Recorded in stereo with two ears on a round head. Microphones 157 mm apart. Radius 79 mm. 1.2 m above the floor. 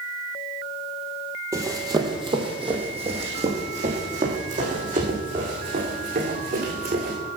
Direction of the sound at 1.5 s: 20° right (ahead or behind).